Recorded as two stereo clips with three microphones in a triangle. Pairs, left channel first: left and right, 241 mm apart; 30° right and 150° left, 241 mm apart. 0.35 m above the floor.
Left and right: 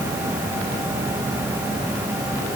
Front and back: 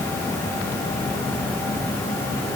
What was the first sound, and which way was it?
Only background noise.